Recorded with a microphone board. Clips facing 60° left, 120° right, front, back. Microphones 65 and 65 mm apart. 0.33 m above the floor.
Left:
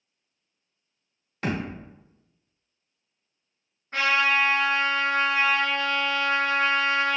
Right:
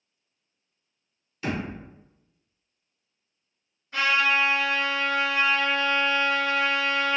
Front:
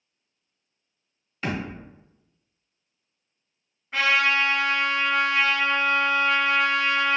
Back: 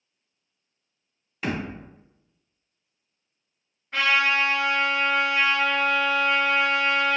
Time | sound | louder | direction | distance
1.4 | a thud | left 1 dB, back 1 dB | 95° left | 1.2 m
3.9 | a trumpet | even, even | 85° left | 1.9 m